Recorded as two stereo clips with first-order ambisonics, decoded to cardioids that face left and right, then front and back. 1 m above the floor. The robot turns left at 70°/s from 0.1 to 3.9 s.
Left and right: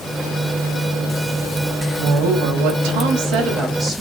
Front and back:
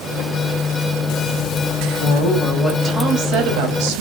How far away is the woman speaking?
About 4.5 m.